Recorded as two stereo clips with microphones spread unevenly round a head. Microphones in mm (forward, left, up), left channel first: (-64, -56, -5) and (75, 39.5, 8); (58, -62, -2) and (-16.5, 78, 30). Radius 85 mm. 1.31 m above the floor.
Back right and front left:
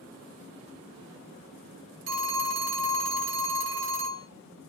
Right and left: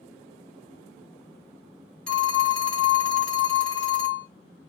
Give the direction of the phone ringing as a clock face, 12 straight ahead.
11 o'clock.